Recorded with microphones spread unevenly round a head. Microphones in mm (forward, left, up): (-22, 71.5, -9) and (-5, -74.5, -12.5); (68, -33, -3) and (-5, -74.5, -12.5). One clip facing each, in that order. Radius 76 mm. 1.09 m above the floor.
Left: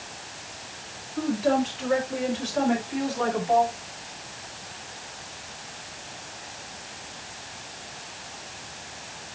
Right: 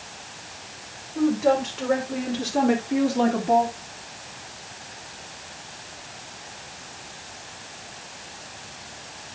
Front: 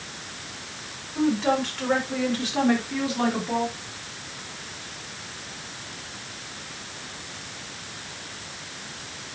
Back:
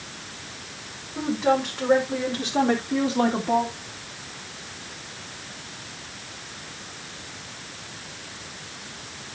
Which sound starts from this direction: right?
A woman speaking, at 1.1 s.